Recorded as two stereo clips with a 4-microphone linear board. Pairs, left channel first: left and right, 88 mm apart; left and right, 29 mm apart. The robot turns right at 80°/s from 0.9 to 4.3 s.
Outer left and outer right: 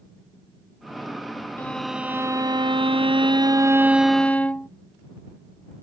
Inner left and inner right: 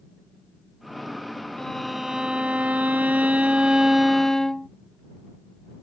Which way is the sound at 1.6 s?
155° left.